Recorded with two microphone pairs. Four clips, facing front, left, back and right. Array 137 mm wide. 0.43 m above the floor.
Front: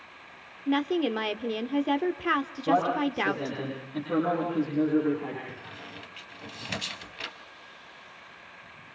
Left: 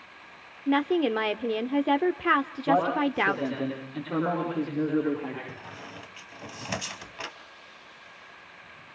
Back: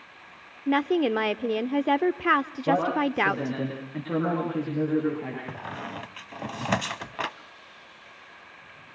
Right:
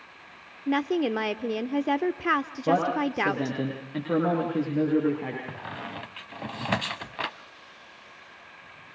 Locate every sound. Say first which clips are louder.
0.7 s a woman speaking: left 1 dB, back 3 dB; 165° left, 0.7 m
2.7 s a man speaking: even, back 1 dB; 100° right, 8 m
5.5 s a squeak: right 5 dB, back 8 dB; 150° right, 1.0 m